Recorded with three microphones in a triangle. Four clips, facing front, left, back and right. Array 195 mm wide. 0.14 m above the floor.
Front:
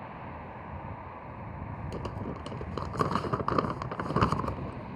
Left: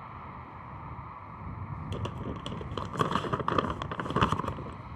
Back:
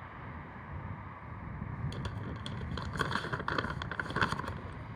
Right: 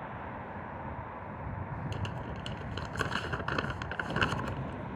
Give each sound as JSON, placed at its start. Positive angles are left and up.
{"t": 0.0, "sound": "a vehicle", "azimuth_deg": -50}
{"t": 1.9, "sound": "crumpling", "azimuth_deg": 35}